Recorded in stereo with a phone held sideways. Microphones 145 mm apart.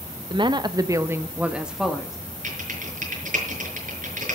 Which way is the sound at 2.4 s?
65° right (ahead or behind).